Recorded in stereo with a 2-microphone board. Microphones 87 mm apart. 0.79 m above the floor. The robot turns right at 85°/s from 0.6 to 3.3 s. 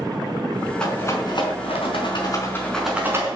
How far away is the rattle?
About 4.5 m.